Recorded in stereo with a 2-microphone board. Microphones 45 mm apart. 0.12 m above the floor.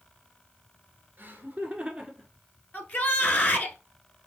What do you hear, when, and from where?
1.2 s laughter: 40° right (ahead or behind), 2.0 m; by 2.3 s centre (ahead or behind), 1.4 m
2.7 s a shout: 40° left (ahead or behind), 1.3 m